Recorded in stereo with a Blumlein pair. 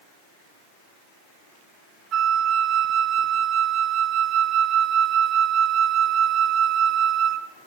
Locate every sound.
2.1 s a flute: 30° right, 0.6 m